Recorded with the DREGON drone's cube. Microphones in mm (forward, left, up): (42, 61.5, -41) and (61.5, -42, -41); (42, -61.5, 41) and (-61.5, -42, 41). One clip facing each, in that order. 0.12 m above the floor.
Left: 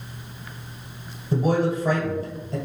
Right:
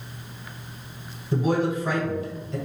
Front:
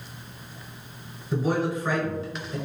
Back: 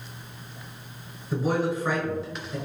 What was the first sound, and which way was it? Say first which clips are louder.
A man speaking: left 1 dB, even; 90° left.